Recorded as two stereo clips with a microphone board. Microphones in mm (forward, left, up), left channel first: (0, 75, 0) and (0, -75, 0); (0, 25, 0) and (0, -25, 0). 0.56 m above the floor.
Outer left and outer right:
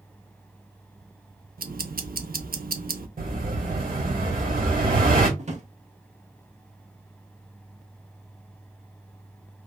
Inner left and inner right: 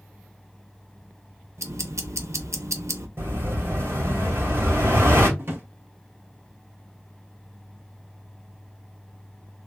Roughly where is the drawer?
Right.